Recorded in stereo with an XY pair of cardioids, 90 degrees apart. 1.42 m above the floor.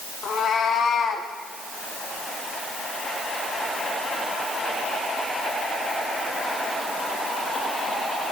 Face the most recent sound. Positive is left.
turn(degrees=75)